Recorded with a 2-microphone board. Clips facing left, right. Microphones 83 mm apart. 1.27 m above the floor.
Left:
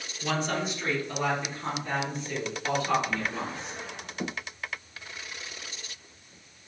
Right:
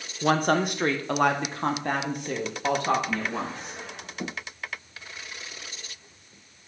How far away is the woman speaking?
About 0.8 m.